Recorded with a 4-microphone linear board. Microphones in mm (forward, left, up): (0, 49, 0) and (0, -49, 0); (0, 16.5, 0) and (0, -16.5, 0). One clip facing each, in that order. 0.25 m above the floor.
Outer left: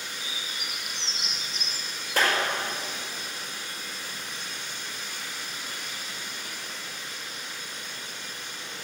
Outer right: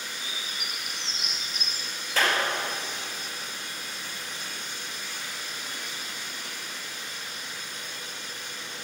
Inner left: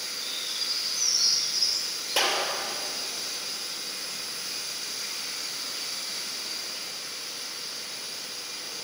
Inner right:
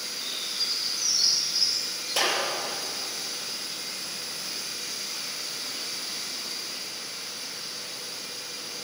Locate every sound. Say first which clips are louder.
0.2 s a bird: even, inner right 2 dB; 45° right (ahead or behind), 3.5 m
2.2 s a clap: outer left 1 dB, even; 15° left (ahead or behind), 5 m